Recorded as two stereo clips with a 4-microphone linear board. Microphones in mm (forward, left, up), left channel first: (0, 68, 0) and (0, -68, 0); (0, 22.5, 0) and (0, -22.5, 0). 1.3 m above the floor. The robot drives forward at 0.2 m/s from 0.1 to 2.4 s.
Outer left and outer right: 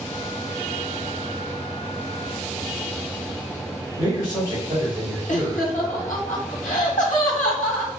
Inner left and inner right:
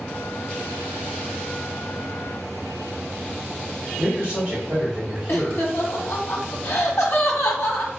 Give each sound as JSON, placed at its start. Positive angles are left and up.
{"t": 4.0, "sound": "a man speaking", "side_deg": -25, "distance_m": 2.5}
{"t": 5.3, "sound": "laughter", "side_deg": 75, "distance_m": 1.6}